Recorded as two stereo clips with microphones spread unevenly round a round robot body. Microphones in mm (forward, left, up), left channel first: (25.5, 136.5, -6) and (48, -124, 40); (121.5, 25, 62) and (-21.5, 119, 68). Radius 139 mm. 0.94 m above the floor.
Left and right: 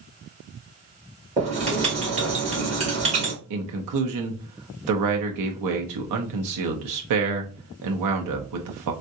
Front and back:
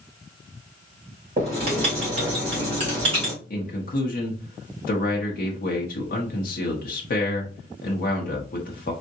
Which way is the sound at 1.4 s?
155° right.